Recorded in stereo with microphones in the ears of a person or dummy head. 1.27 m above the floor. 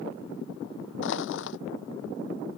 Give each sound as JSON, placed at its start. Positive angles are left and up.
{"t": 1.0, "sound": "crushing", "side_deg": 80}